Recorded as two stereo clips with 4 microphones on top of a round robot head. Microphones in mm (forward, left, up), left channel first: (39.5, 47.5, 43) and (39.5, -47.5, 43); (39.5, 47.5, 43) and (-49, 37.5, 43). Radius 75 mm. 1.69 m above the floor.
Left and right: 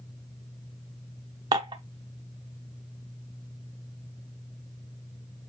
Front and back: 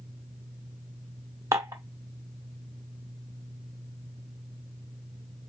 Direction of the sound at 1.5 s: 120° right.